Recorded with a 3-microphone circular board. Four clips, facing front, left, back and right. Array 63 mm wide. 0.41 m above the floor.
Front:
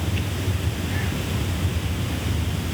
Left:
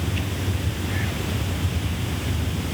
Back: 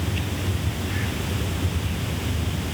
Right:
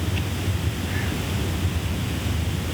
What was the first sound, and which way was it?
Only background noise.